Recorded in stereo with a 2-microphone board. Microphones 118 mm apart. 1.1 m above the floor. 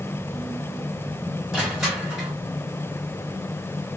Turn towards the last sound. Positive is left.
turn(degrees=-5)  # may be behind; listen again after turning